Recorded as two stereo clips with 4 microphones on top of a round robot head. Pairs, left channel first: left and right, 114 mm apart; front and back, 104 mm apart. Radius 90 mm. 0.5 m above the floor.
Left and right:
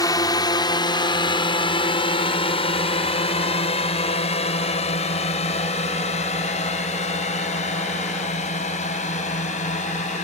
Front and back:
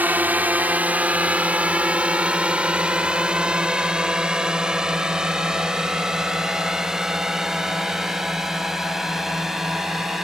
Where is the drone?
115° left; by 10.3 s 95° left.